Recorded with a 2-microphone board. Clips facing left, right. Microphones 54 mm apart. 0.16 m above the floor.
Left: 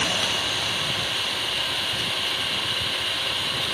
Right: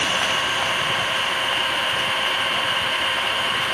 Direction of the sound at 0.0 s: 40° right (ahead or behind).